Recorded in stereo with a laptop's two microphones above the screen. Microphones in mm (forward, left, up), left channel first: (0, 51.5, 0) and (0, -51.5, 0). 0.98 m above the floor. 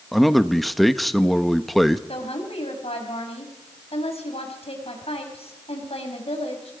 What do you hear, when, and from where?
0.1 s a man speaking: centre (ahead or behind), 1.2 m
2.1 s a woman speaking: 75° left (ahead or behind), 5.5 m